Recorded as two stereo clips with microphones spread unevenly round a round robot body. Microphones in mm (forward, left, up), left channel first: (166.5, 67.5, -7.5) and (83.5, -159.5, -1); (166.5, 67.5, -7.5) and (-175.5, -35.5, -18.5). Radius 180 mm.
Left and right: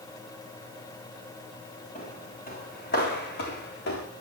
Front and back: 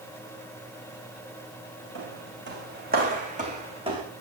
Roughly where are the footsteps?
Behind left.